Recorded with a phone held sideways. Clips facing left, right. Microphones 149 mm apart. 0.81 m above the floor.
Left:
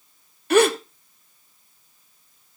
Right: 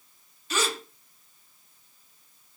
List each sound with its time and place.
0.5 s a gasp: 65° left (ahead or behind), 0.6 m